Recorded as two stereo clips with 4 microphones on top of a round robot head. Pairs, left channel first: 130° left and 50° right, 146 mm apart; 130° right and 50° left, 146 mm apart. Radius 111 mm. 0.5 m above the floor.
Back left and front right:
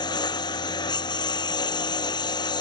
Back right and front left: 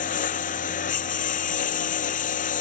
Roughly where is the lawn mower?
Behind.